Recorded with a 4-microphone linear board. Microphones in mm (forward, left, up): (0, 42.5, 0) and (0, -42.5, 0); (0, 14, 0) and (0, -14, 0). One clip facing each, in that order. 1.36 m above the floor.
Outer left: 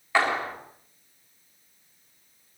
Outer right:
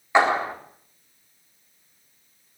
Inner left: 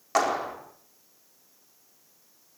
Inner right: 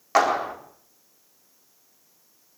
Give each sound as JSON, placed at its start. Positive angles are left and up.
{"t": 0.1, "sound": "a clap", "side_deg": -20, "distance_m": 4.0}